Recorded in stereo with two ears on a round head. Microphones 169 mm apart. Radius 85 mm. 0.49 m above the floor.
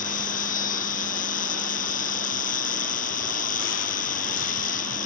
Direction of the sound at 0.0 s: 45° left (ahead or behind).